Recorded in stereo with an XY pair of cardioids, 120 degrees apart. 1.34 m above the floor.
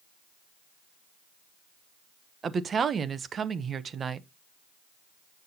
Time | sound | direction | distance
2.4 | a woman speaking | 35° right | 0.9 m